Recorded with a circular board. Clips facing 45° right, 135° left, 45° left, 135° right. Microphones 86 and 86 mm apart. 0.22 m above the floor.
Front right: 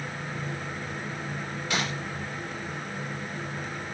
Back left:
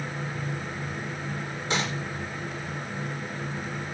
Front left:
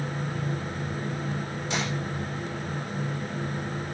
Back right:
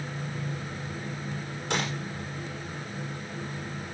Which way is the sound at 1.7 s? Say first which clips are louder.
Back left 1 dB, back right 1 dB; 160° right.